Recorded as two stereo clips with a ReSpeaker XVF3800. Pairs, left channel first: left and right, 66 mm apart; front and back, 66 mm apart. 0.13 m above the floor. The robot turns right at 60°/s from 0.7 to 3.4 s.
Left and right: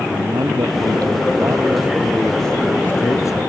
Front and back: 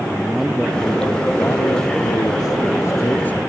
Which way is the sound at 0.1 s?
95° right.